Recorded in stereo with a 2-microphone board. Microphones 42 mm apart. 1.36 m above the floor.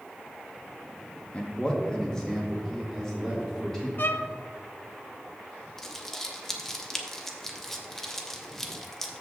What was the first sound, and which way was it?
A man speaking, 30° left (ahead or behind).